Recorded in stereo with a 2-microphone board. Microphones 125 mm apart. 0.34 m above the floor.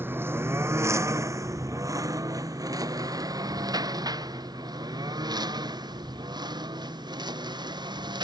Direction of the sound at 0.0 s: 15° right (ahead or behind).